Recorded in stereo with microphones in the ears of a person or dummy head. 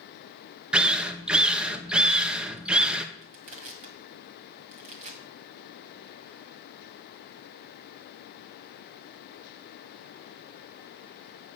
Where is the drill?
5° right (ahead or behind), 0.7 m.